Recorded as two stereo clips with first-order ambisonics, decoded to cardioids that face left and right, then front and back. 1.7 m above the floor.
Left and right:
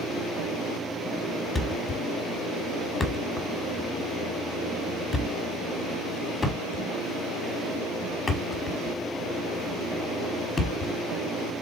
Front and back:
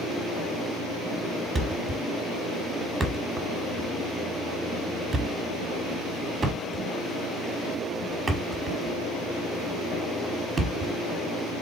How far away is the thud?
About 1.3 m.